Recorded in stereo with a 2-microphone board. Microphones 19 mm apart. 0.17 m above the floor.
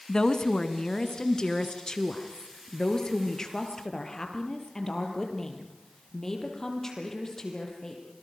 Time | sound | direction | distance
0.1 | a woman speaking | 40° left (ahead or behind) | 1.6 m